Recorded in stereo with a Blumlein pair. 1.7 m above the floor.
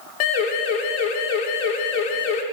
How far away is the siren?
About 7 m.